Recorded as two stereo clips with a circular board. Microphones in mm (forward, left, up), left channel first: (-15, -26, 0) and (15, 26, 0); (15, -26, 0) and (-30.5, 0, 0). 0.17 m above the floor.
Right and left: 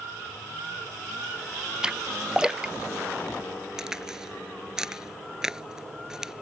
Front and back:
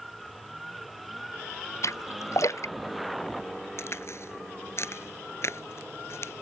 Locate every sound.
1.8 s a splash: 15° right
3.8 s a crack: 20° right